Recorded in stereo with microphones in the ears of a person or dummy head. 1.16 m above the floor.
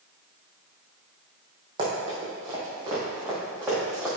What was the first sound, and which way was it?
Running footsteps, 35° right (ahead or behind).